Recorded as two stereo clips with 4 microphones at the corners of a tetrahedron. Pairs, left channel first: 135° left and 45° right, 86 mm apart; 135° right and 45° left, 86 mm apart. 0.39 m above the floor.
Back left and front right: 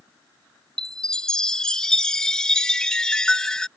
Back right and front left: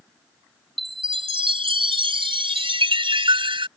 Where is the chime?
55° left.